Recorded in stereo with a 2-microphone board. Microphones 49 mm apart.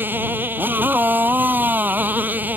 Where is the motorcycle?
45° right (ahead or behind); by 2.6 s 35° right (ahead or behind).